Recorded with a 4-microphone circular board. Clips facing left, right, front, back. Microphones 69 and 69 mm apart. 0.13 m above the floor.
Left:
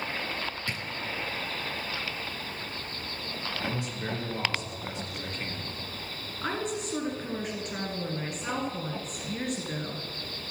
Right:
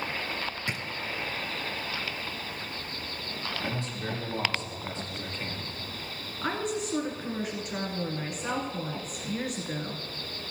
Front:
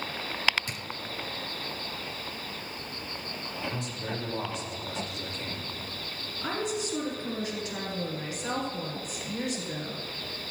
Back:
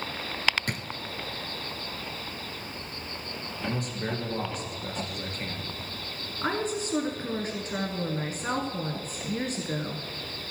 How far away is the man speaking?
About 2.5 m.